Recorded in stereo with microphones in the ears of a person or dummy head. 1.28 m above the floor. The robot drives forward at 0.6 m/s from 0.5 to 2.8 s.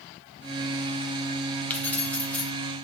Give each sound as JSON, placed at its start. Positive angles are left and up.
{"t": 1.7, "sound": "keys jangling", "side_deg": 5, "distance_m": 0.8}